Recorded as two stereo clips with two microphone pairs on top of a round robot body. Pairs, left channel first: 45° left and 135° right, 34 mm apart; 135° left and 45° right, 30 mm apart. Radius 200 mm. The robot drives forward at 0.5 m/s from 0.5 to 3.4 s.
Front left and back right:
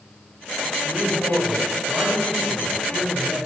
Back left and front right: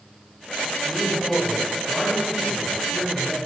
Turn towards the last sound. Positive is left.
turn(degrees=-160)